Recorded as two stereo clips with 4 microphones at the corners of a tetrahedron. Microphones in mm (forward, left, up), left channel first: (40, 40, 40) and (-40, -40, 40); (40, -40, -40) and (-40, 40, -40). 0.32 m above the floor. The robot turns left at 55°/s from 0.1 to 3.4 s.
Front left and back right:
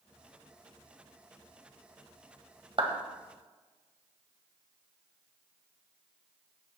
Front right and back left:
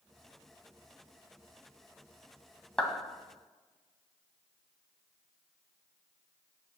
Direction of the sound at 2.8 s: 130° right.